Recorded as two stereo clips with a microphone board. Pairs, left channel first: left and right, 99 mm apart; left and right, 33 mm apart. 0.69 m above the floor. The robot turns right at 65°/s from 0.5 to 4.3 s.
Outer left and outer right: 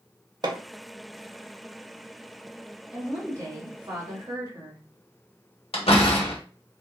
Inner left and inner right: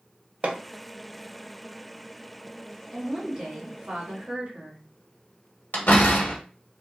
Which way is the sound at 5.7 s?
70° left (ahead or behind).